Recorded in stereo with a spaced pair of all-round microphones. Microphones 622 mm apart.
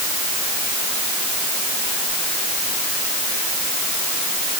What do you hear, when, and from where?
Only background noise.